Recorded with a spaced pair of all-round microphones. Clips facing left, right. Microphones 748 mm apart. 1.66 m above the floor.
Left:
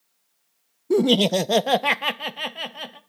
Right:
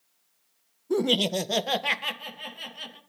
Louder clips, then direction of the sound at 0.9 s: Left 7 dB; 55° left (ahead or behind).